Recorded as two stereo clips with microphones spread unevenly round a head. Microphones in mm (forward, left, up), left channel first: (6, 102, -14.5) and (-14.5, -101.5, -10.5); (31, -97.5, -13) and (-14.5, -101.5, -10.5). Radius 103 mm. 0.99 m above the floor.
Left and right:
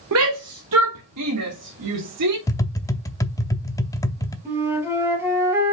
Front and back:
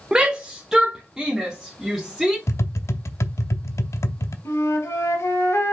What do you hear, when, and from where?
0.1 s a shout: 100° right, 1.0 m; by 2.4 s 90° right, 2.5 m
2.5 s tapping: 10° left, 0.7 m
4.5 s a flute: 15° right, 3 m